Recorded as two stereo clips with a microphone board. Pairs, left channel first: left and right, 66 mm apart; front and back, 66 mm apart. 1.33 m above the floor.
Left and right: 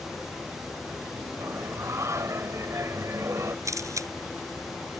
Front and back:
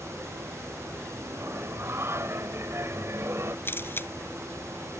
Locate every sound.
1.4 s singing: 135° right
3.6 s a camera shutter: 55° right